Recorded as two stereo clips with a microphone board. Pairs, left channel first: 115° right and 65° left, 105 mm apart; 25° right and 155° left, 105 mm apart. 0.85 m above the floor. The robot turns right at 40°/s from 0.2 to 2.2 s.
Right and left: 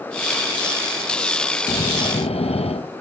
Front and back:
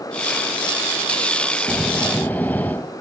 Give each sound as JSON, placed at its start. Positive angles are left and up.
{"t": 1.7, "sound": "snoring", "azimuth_deg": -120}